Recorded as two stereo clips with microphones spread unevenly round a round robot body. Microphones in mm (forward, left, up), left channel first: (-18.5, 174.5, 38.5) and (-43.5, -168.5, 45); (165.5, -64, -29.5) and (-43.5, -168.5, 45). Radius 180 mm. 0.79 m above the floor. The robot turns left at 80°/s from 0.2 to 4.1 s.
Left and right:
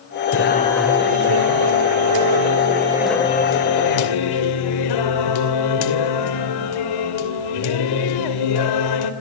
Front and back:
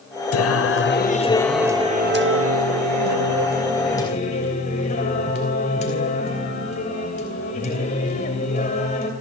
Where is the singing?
35° left, 2.5 m; by 9.1 s 95° left, 2.5 m.